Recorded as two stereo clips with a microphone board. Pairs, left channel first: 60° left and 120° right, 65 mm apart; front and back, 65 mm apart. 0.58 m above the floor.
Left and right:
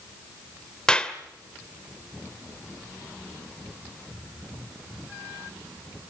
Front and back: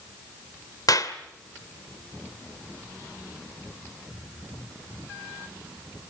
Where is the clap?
15° right, 1.8 m.